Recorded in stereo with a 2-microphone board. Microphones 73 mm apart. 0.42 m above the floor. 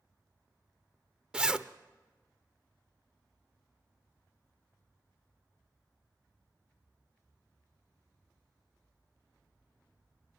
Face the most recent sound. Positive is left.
turn(degrees=-10)  # may be behind; listen again after turning